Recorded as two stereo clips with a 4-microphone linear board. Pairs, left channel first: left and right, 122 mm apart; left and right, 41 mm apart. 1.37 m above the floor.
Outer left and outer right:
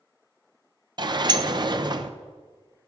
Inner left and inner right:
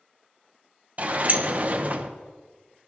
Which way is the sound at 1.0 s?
40° right (ahead or behind).